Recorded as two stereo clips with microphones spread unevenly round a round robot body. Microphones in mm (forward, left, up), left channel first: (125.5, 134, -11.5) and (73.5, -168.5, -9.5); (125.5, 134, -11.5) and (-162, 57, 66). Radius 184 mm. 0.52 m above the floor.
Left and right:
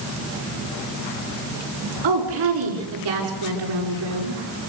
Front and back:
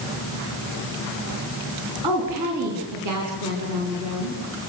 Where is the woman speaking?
120° right, 6.5 m; by 4.4 s 115° right, 7.5 m.